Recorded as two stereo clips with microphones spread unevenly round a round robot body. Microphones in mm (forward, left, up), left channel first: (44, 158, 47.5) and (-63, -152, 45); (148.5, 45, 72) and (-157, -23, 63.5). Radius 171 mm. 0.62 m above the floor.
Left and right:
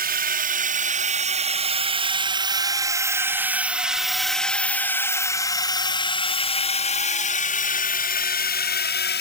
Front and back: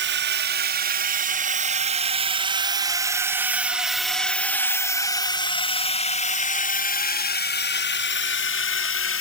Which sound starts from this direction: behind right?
A drone, at 0.0 s.